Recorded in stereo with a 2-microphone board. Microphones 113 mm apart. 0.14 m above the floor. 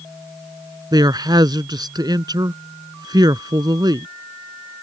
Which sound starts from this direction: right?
A man speaking, at 0.9 s.